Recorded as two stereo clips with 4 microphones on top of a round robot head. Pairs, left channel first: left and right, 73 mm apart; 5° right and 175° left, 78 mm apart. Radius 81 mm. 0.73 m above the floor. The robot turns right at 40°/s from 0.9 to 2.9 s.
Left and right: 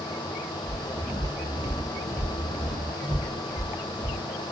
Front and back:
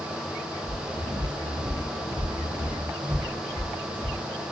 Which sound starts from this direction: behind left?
Footsteps, at 0.7 s.